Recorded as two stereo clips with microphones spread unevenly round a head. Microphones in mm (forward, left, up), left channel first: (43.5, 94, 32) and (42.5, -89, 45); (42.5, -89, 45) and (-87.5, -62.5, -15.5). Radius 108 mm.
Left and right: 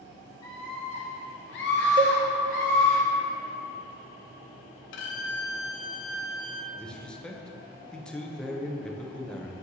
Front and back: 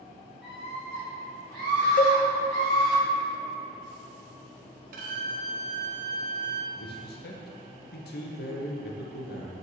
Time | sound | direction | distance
0.4 | a scream | 20° left | 1.4 m
2.0 | a cowbell | 25° right | 0.5 m
4.9 | a violin | 125° left | 0.5 m
6.7 | a man speaking | 5° left | 0.8 m